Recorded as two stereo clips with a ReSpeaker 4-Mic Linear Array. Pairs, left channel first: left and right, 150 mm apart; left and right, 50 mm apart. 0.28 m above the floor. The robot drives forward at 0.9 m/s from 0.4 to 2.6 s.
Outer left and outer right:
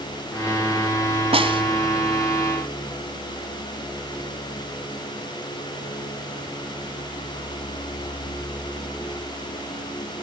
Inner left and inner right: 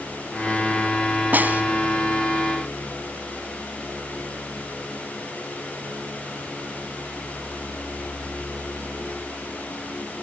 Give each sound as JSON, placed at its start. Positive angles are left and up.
{"t": 1.3, "sound": "a snare drum", "side_deg": -40, "distance_m": 1.5}